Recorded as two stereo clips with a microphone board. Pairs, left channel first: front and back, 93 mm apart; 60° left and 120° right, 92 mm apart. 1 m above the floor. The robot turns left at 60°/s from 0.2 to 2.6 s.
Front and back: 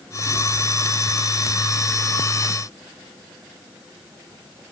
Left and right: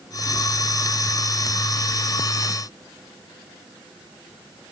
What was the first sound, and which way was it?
Only background noise.